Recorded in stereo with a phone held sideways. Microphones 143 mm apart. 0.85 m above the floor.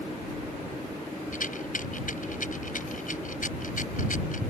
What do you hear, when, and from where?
1.3 s a rattle: 65° left (ahead or behind)